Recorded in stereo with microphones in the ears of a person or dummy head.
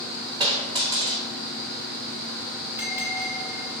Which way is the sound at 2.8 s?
10° right (ahead or behind).